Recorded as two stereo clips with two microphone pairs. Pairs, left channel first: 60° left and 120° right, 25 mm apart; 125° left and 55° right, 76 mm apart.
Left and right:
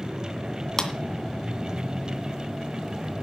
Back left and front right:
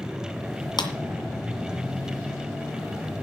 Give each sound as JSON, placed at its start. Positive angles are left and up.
{"t": 0.8, "sound": "a clap", "azimuth_deg": 130, "distance_m": 1.9}